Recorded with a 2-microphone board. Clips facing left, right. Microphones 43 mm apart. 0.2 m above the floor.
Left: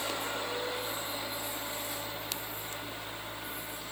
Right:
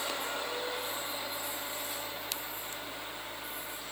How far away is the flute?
No flute in this recording.